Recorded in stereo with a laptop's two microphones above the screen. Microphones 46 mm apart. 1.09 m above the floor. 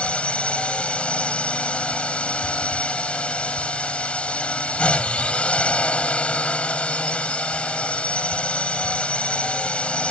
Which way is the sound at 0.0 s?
25° left (ahead or behind).